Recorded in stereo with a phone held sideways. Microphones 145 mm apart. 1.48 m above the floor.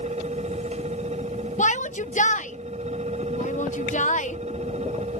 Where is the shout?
60° left (ahead or behind).